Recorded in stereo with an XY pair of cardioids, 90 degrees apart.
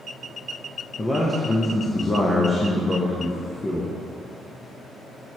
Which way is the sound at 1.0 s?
25° left.